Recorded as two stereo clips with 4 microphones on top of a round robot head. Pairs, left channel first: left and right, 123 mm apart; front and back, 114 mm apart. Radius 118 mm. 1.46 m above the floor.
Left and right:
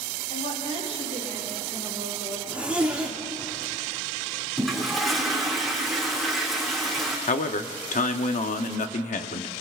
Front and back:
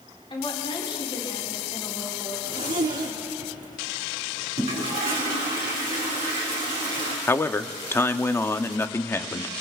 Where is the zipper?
170° right, 2 m.